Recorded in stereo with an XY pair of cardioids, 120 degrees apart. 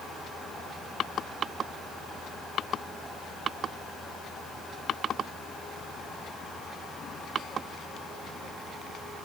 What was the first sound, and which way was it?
Only background noise.